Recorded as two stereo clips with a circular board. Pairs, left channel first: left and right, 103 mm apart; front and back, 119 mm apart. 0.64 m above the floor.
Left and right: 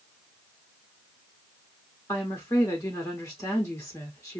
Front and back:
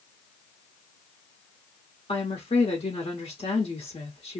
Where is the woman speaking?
30° left, 1.3 m.